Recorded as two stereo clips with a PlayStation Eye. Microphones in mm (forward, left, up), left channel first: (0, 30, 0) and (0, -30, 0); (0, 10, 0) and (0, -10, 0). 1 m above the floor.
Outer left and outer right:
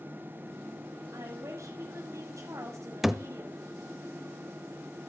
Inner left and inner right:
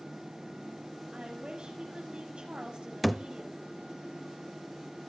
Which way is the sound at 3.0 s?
5° right (ahead or behind).